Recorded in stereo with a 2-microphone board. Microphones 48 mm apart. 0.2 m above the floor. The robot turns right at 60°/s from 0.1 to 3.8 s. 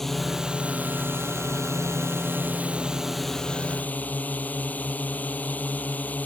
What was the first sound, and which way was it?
A drone, 175° left.